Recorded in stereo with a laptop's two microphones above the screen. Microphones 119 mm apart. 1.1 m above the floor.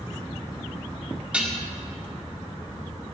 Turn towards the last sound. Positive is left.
turn(degrees=-10)  # may be behind; listen again after turning